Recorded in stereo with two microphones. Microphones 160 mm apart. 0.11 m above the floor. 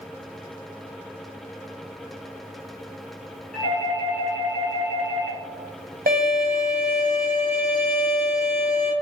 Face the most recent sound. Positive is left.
turn(degrees=-75)  # may be behind; listen again after turning